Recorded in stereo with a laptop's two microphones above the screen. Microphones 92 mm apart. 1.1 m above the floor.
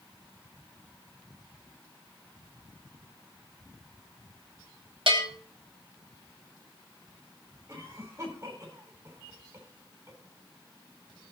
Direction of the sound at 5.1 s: 75° right (ahead or behind).